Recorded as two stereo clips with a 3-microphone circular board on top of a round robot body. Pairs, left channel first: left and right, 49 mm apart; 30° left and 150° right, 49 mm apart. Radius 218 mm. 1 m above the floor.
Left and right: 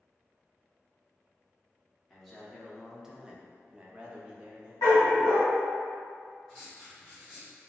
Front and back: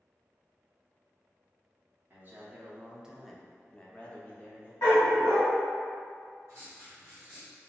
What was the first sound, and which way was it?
A man speaking, 175° left.